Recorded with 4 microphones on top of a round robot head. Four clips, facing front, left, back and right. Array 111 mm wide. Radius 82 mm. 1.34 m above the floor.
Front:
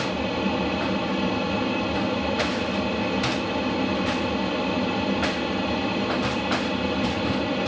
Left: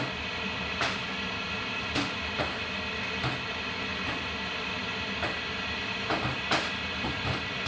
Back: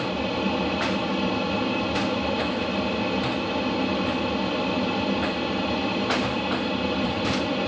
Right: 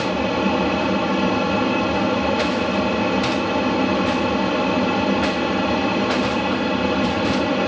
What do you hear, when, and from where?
0.0 s an aircraft: 90° right